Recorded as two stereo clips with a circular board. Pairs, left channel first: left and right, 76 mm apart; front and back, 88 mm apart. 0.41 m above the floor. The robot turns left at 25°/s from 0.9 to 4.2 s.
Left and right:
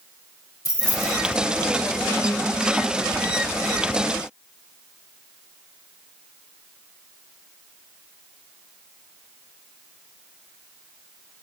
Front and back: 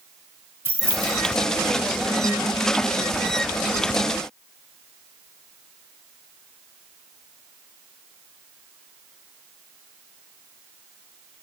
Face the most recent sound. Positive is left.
turn(degrees=40)